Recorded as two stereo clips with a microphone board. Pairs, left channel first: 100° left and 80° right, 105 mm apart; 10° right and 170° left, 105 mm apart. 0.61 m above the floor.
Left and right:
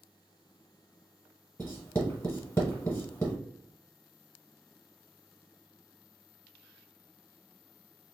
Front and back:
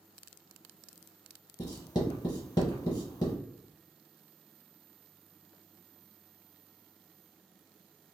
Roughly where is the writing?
Ahead left.